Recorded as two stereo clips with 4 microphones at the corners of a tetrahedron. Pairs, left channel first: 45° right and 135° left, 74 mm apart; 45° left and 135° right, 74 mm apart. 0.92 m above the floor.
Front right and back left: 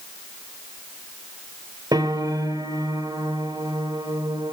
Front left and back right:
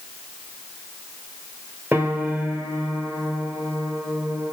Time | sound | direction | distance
1.9 | a piano | 155° left | 1.4 m